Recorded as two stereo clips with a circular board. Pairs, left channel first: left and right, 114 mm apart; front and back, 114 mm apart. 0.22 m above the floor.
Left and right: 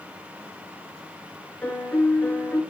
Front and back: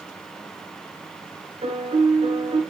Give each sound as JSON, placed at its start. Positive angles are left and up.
{"t": 1.6, "sound": "a piano", "azimuth_deg": 160, "distance_m": 2.0}